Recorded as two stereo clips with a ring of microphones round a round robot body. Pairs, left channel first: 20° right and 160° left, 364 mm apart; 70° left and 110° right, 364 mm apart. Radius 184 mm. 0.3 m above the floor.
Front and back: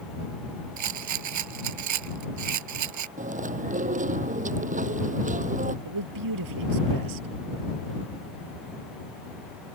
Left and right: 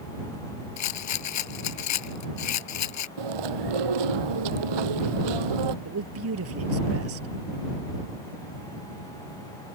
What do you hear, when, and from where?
0.8 s a rattle: 115° left
3.2 s chewing: 130° right
5.8 s a man speaking: 165° right